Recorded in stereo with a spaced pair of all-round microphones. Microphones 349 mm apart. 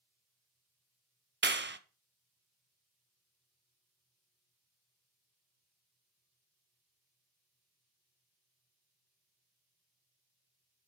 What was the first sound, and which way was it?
A clap, 30° right (ahead or behind).